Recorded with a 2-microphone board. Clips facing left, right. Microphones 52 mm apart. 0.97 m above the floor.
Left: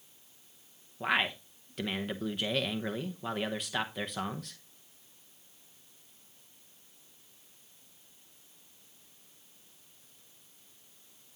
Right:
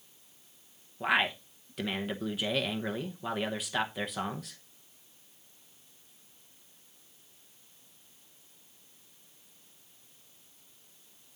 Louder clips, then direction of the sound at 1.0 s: Right 2 dB; centre (ahead or behind).